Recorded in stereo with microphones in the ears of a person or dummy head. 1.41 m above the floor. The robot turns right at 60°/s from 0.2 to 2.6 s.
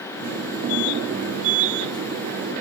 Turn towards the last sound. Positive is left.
No sound to turn to.